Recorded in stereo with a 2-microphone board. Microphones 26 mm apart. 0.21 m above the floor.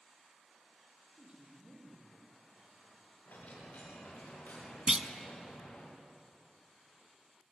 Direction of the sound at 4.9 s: 25° right (ahead or behind).